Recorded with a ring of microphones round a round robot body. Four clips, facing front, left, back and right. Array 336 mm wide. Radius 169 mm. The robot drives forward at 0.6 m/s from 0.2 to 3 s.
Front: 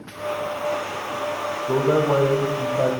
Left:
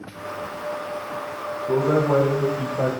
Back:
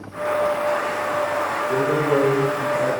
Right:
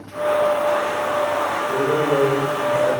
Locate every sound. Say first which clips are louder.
1.7 s a man speaking: left 2 dB, front 2 dB; 30° left, 3.5 m; by 2.9 s 40° left, 3 m